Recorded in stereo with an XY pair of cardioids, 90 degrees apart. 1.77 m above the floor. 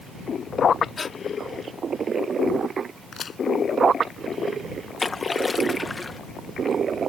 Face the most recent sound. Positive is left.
turn(degrees=25)